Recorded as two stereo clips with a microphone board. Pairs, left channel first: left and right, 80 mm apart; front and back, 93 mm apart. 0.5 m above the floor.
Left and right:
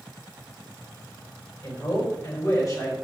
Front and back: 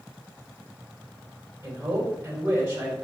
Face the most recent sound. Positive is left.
turn(degrees=120)